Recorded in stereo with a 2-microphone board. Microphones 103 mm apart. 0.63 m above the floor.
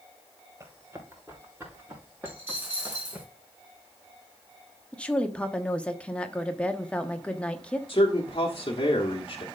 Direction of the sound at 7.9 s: 50° left (ahead or behind).